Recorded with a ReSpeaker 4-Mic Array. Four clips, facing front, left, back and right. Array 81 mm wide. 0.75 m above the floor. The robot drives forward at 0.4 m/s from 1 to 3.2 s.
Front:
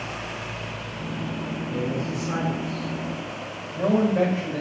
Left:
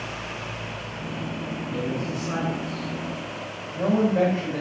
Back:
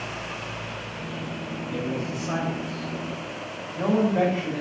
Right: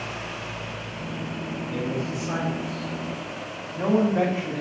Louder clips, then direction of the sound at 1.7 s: Even, front 1 dB; 170° right.